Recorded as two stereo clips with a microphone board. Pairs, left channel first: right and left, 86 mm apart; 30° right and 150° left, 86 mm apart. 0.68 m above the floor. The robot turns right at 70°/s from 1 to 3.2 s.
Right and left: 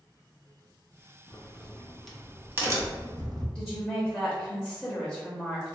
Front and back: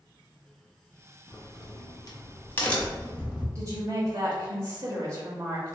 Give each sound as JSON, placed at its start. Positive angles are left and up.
{"t": 1.3, "sound": "a crack", "azimuth_deg": -60, "distance_m": 0.6}
{"t": 3.5, "sound": "a woman speaking", "azimuth_deg": 180, "distance_m": 0.8}